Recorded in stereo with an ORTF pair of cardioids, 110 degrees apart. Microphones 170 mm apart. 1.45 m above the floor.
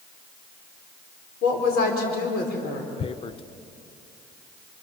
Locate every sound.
1.4 s a woman speaking: 65° left, 5 m
3.0 s tearing paper: 30° left, 0.6 m